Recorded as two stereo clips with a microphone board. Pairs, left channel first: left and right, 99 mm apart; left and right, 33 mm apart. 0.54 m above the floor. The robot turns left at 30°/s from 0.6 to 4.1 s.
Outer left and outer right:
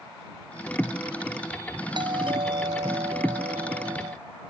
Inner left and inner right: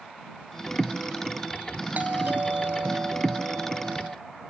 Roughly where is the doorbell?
Ahead right.